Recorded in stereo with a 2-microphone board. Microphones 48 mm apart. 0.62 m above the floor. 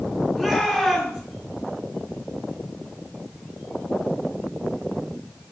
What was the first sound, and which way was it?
A shout, 10° right (ahead or behind).